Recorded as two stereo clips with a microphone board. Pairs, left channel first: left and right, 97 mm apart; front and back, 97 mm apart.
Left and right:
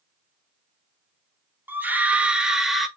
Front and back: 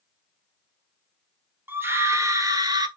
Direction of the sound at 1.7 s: 135° right.